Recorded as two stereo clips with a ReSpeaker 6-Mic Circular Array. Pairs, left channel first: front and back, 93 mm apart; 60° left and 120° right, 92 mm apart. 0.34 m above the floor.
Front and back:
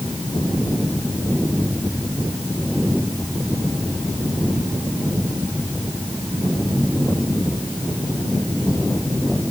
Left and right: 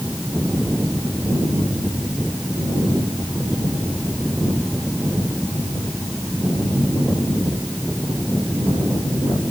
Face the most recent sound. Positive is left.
No sound to turn to.